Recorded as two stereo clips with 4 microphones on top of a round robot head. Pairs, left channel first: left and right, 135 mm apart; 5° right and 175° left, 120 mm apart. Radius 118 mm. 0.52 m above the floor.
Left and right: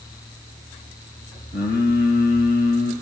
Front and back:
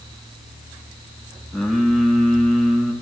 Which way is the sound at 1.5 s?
85° left.